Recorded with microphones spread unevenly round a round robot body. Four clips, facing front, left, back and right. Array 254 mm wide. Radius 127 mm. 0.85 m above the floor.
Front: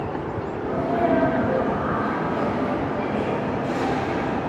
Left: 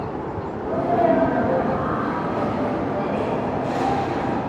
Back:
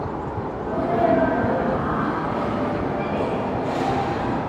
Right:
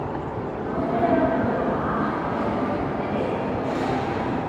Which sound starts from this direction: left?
A sneeze, at 0.6 s.